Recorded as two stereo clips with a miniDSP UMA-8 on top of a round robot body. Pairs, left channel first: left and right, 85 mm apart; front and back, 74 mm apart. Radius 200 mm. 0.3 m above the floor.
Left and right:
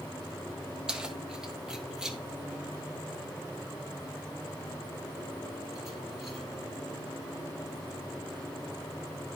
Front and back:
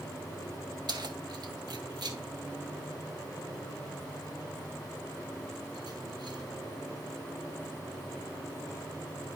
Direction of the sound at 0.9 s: 170° right.